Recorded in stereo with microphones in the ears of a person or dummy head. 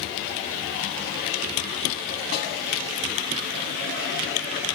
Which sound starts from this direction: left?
A snare drum, at 2.3 s.